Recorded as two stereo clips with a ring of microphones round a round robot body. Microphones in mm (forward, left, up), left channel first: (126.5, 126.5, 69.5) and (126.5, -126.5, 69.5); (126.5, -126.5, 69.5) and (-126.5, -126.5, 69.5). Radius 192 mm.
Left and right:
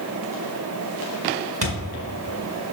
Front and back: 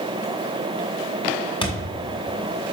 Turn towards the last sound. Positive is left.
turn(degrees=-70)